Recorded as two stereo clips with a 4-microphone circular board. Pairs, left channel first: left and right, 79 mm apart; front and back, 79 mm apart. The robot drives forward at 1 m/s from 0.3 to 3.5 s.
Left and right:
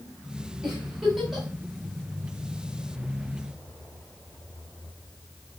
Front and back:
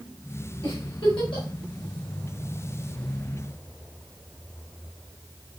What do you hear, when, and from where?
0.6 s a giggle: 5° right, 6.5 m